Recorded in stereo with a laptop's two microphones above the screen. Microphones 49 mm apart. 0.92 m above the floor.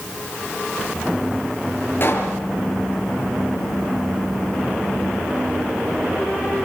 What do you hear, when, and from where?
2.0 s a pop: 45° left (ahead or behind), 5.5 m